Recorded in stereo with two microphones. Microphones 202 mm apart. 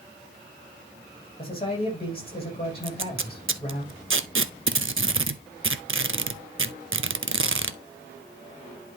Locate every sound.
1.4 s a man speaking: 30° left (ahead or behind), 6 m
2.8 s tape being pulled: 85° right, 0.6 m